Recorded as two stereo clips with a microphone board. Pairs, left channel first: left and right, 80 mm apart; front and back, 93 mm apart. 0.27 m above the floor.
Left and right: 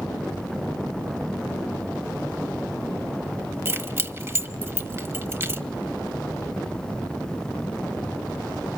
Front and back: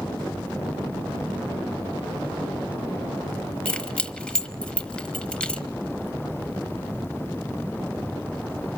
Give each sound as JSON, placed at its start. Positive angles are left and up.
{"t": 3.6, "sound": "keys jangling", "azimuth_deg": -70, "distance_m": 0.8}